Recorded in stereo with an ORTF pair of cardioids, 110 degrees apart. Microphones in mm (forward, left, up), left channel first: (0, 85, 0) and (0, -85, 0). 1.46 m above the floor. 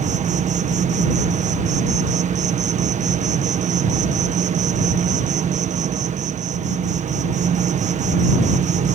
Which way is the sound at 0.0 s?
50° right.